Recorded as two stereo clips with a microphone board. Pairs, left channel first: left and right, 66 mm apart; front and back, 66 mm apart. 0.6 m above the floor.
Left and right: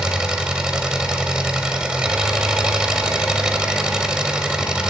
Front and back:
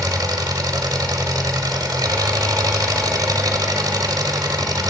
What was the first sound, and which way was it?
An engine running, 170° right.